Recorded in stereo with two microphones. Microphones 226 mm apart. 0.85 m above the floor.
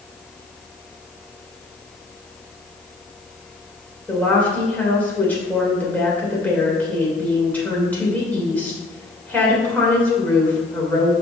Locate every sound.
4.1 s a woman speaking: 5° left (ahead or behind), 3 m